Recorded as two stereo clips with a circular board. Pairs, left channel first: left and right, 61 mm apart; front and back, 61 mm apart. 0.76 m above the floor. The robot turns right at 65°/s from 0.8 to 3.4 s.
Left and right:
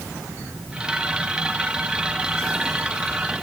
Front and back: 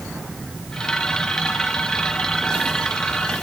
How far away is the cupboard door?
No cupboard door in this recording.